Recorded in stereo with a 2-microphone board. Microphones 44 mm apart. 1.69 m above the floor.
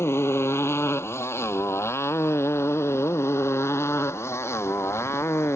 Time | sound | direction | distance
0.0 | a motorcycle | 70° left (ahead or behind) | ?